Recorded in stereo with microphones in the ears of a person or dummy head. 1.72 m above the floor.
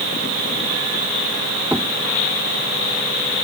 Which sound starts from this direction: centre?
Knocking, at 1.7 s.